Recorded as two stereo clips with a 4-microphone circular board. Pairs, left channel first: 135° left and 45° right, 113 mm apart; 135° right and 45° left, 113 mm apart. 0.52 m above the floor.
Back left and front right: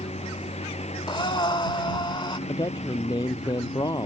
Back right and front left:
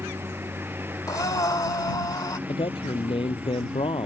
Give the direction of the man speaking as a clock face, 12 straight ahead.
6 o'clock.